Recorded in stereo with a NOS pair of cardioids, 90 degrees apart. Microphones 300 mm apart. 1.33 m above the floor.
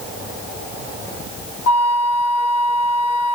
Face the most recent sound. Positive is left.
turn(degrees=65)